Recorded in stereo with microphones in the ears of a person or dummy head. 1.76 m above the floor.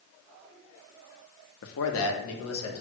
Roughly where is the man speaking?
Left.